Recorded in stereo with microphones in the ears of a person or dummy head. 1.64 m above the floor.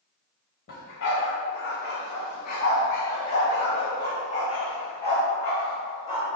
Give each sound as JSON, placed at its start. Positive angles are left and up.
{"t": 0.7, "sound": "a dog barking", "side_deg": 50, "distance_m": 1.6}